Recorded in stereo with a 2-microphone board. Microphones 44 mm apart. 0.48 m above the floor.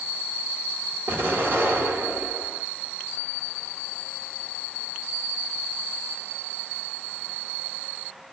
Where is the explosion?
55° right (ahead or behind), 1.3 m.